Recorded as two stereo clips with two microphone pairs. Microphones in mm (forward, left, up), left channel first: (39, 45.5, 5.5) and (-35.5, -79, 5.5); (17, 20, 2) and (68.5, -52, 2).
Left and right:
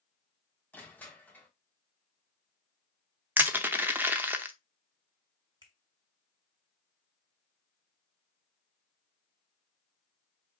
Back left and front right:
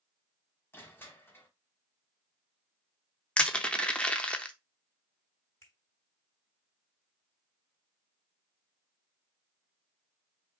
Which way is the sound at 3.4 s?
170° right.